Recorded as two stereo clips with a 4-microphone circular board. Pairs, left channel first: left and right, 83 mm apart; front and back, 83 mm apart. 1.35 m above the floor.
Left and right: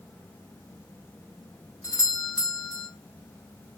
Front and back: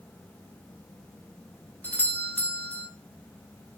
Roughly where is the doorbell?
Ahead left.